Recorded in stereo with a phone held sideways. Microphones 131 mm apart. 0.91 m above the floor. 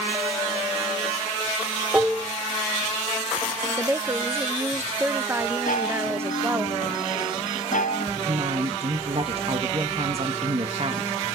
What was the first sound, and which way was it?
Dishes clattering, 15° right (ahead or behind).